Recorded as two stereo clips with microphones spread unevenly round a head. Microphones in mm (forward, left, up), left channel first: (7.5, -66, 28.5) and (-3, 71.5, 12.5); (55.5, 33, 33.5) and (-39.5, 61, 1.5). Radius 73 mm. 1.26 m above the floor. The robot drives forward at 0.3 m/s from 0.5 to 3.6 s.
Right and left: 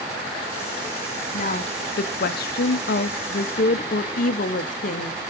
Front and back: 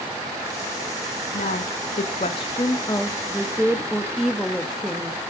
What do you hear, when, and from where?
1.3 s a woman speaking: 45° right, 0.7 m; by 5.2 s 115° right, 0.6 m